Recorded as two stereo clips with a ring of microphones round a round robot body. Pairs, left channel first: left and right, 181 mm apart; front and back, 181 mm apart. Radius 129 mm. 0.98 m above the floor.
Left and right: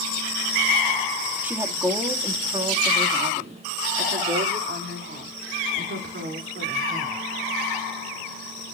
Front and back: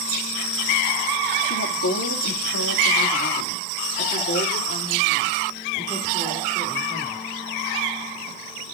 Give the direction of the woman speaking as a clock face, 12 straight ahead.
12 o'clock.